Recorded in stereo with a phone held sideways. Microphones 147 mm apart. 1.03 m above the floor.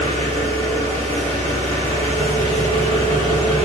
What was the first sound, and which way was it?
An engine running, 55° left (ahead or behind).